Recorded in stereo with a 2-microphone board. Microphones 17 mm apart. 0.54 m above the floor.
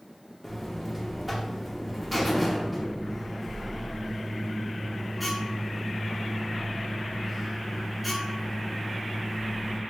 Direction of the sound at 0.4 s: 5° right (ahead or behind).